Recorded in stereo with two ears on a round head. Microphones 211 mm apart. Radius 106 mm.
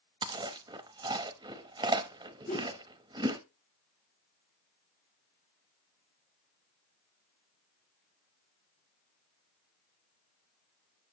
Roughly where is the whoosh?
Left.